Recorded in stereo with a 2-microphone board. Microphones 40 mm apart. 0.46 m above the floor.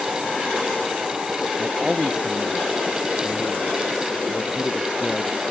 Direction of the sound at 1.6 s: 10° right (ahead or behind).